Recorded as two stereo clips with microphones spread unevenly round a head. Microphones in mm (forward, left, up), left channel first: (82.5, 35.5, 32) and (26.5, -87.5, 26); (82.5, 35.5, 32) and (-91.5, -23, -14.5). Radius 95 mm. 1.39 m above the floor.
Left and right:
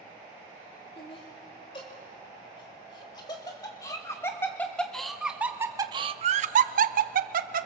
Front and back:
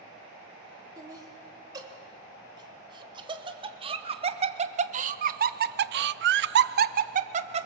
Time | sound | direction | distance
1.0 | laughter | 125° left | 4 m